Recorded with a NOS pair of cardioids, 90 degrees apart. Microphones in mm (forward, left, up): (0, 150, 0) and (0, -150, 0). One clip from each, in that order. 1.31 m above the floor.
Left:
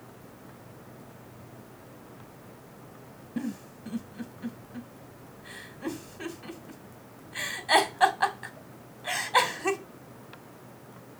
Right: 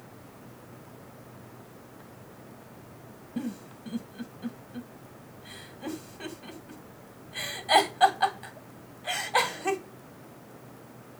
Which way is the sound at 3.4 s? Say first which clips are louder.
Left 1 dB; 10° left.